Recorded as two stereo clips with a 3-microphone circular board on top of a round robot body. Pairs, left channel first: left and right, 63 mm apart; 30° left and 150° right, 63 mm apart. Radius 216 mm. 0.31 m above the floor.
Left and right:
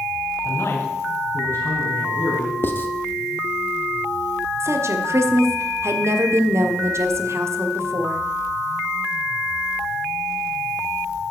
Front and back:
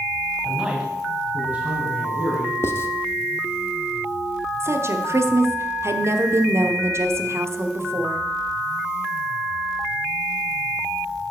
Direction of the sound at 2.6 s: 55° left.